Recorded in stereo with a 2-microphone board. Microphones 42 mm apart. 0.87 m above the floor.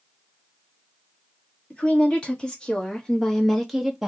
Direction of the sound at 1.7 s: 25° left (ahead or behind).